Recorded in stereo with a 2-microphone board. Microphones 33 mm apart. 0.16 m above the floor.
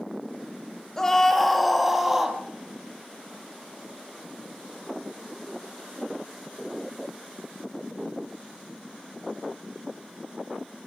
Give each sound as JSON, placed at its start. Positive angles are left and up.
{"t": 1.0, "sound": "a scream", "side_deg": 15, "distance_m": 3.0}